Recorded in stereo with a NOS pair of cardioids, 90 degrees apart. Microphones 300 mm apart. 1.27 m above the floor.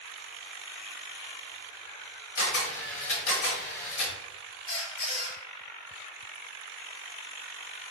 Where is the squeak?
45° left, 1.2 m.